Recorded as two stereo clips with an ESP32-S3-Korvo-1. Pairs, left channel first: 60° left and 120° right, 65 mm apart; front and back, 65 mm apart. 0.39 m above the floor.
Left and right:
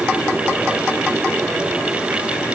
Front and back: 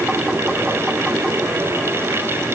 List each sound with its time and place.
Only background noise.